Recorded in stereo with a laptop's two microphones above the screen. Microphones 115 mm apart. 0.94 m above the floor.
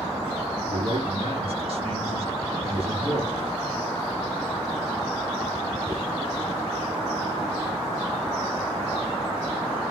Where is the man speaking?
60° right (ahead or behind), 6.5 m.